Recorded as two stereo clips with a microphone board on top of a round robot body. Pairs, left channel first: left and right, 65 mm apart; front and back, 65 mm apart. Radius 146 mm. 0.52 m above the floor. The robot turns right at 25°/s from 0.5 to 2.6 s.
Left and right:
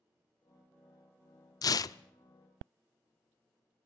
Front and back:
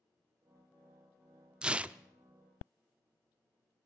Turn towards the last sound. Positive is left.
turn(degrees=130)